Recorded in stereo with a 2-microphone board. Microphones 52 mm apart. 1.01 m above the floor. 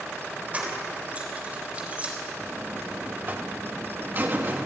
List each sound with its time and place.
0.5 s keys jangling: 25° right (ahead or behind), 3.5 m
2.4 s a buzzer: 45° right (ahead or behind), 2 m